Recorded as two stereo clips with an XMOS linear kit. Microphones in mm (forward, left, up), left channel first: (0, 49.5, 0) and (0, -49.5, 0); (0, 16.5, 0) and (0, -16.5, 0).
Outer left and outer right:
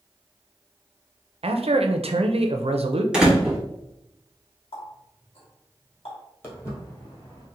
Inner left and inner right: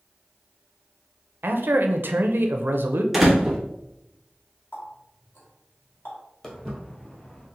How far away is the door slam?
About 0.9 m.